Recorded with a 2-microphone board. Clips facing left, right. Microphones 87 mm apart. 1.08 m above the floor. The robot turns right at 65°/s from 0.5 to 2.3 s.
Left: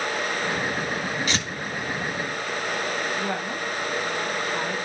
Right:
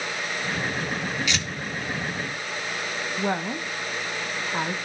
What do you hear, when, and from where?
1.3 s tearing paper: 45° left (ahead or behind), 2 m; by 1.5 s 35° left (ahead or behind), 2 m
3.2 s a woman speaking: 20° right (ahead or behind), 0.8 m